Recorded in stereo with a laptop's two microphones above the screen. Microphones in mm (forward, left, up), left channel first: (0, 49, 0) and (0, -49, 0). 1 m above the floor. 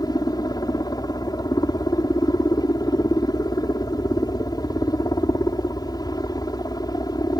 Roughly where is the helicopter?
Left.